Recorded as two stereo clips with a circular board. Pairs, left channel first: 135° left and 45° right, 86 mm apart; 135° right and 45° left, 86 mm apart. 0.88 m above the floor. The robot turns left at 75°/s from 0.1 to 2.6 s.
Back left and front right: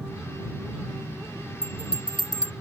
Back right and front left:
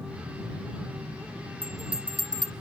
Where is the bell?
145° left; by 2.5 s 80° left.